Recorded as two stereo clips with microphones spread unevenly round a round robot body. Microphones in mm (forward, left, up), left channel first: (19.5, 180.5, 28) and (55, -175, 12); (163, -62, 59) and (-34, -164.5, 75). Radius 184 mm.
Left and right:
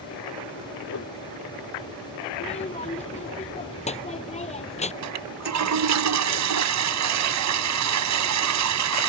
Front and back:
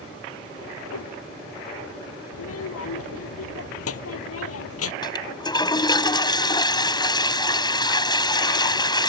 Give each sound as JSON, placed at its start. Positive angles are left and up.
{"t": 0.9, "sound": "a whoosh", "azimuth_deg": 45}
{"t": 2.3, "sound": "a child speaking", "azimuth_deg": 25}
{"t": 5.0, "sound": "a toilet flushing", "azimuth_deg": -45}